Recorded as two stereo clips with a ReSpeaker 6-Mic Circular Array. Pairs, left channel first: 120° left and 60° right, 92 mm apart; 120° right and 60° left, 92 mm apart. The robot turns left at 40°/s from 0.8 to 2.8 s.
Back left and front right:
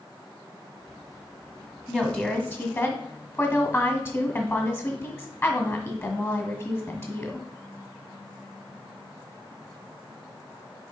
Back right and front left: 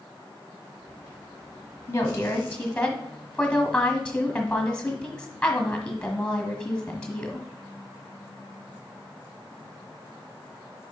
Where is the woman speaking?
160° right, 1.5 m; by 7.5 s 165° left, 1.5 m.